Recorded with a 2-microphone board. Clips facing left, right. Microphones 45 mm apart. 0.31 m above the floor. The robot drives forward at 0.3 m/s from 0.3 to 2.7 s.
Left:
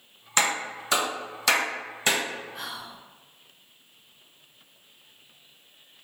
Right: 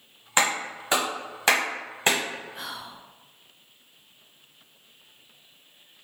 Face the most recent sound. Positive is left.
turn(degrees=-20)  # may be behind; listen again after turning